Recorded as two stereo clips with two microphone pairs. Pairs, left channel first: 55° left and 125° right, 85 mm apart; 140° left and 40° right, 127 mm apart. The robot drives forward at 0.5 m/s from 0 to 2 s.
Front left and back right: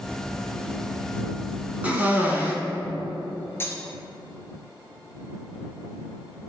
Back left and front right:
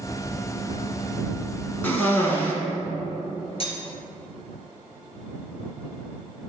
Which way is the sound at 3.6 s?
110° left.